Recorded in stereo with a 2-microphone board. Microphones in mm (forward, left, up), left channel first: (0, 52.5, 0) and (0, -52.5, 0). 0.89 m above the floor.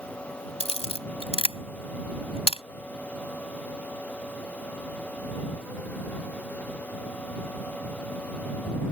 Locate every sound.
0.6 s a camera shutter: 70° left (ahead or behind)